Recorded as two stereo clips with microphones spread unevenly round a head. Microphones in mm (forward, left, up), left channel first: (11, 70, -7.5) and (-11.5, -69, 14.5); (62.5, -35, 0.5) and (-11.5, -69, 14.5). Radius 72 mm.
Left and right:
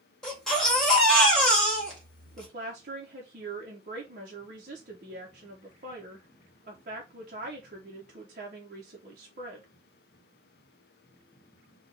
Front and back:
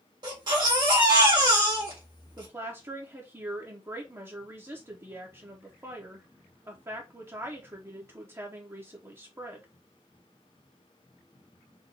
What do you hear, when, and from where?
0.2 s a baby crying: 170° left, 1.7 m
2.4 s a woman speaking: 110° right, 1.0 m